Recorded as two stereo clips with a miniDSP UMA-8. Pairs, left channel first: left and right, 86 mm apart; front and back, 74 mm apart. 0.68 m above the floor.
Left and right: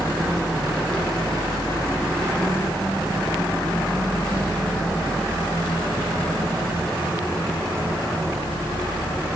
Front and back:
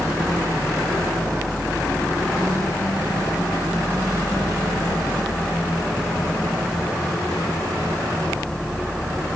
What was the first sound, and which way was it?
Only background noise.